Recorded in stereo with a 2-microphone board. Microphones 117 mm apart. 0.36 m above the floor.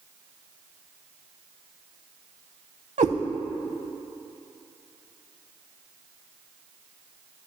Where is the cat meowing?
85° right, 0.5 m.